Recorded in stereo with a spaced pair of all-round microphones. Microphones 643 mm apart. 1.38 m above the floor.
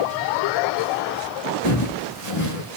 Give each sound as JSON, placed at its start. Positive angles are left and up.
{"t": 1.6, "sound": "footsteps", "side_deg": 40, "distance_m": 4.0}